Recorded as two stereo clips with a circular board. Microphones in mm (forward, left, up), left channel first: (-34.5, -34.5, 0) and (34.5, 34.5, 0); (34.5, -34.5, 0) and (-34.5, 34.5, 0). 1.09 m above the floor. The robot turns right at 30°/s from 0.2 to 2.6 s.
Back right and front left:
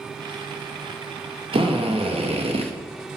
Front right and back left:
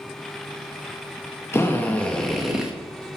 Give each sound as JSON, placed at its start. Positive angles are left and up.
{"t": 1.5, "sound": "a drill", "azimuth_deg": 20, "distance_m": 0.9}